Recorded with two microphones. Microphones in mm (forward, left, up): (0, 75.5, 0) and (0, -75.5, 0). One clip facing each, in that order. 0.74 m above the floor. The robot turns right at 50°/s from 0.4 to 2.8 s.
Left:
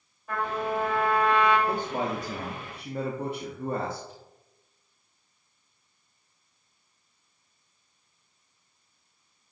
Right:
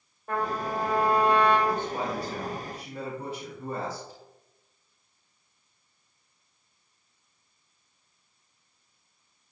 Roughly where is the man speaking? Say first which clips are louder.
Even; ahead left.